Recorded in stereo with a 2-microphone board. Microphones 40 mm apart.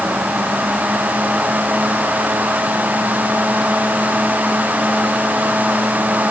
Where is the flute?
I don't hear a flute.